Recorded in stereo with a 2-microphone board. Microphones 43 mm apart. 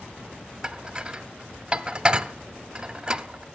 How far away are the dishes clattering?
About 0.6 m.